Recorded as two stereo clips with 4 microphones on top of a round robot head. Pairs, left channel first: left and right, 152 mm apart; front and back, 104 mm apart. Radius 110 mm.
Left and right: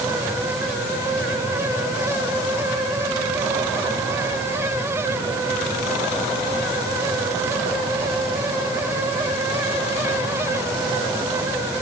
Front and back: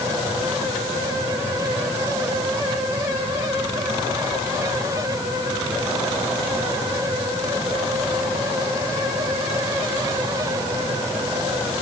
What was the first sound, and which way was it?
Only background noise.